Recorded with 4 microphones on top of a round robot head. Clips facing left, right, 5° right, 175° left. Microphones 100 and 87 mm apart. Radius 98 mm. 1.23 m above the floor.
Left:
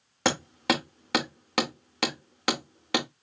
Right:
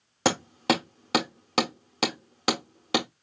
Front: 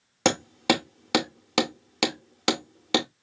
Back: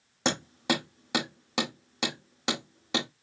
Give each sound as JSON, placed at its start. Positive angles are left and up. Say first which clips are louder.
{"t": 0.2, "sound": "hammering", "louder": "right 2 dB, front 5 dB", "azimuth_deg": -20, "distance_m": 0.7}